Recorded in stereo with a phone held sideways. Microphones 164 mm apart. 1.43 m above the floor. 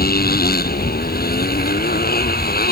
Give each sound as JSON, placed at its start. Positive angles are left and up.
{"t": 0.0, "sound": "a motorcycle", "side_deg": 65}